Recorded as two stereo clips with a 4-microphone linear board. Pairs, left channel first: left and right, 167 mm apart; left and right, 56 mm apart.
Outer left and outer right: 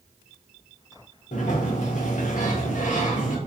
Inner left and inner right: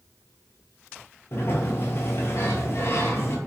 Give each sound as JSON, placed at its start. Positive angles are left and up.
{"t": 1.3, "sound": "a sliding door", "side_deg": 55, "distance_m": 0.5}